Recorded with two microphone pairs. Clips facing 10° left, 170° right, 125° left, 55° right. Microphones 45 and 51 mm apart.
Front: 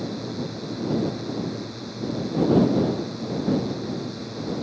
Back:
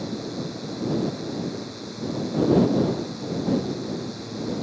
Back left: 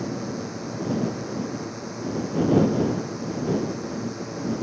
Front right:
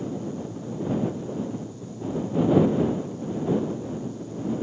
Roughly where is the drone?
Left.